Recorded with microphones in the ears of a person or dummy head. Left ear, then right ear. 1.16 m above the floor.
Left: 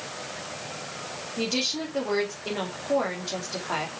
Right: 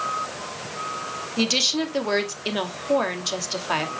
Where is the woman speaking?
75° right (ahead or behind), 2.5 m.